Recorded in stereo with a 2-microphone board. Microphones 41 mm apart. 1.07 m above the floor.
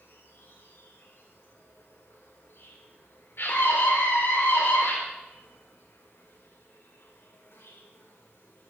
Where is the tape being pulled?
No tape being pulled in this recording.